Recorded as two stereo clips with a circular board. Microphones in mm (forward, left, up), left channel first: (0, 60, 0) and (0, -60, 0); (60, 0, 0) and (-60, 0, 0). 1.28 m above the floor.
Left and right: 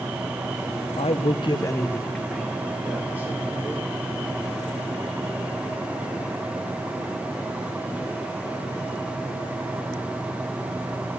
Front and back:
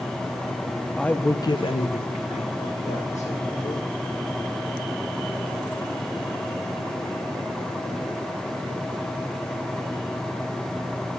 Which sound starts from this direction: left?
A man speaking, at 1.0 s.